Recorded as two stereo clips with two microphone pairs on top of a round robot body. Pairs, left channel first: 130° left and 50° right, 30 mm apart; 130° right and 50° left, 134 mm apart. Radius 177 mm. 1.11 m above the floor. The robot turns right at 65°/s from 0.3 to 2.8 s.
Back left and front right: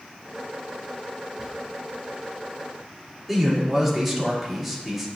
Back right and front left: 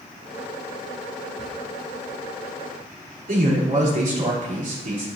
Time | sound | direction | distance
1.4 | a drawer | 125° right | 0.9 m
3.3 | a man speaking | 35° left | 3.5 m